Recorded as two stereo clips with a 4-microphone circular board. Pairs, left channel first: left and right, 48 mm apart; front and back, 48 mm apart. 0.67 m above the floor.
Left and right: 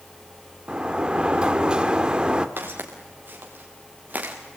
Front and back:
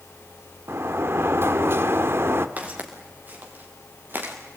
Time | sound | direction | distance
0.7 | a sliding door | 160° right | 1.3 m
2.6 | footsteps | 130° right | 4.5 m